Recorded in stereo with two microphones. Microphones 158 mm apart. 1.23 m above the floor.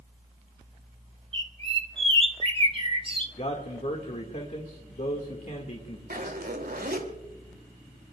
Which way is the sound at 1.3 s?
35° right (ahead or behind).